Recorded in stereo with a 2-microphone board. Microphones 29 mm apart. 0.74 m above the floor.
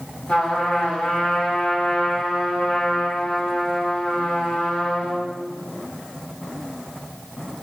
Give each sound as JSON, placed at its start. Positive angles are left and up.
{"t": 0.3, "sound": "a trumpet", "side_deg": 65, "distance_m": 4.0}